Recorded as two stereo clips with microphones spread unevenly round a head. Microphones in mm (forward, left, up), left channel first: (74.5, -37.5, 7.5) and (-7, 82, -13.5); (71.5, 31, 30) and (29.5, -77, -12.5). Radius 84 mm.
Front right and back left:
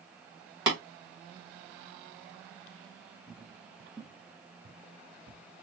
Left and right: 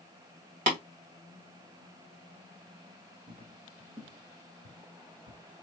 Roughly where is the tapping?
Behind.